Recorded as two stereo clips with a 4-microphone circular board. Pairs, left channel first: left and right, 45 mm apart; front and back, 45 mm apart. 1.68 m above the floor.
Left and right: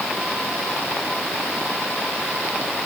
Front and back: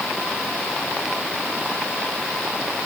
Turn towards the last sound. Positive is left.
No sound to turn to.